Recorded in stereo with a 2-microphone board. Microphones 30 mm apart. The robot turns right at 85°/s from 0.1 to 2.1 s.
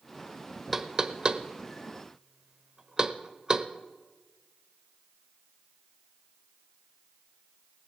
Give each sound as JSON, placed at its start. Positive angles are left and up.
{"t": 0.7, "sound": "knocking", "side_deg": -10, "distance_m": 0.7}